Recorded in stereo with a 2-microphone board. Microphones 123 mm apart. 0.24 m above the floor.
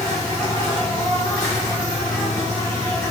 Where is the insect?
30° left (ahead or behind), 3.5 m.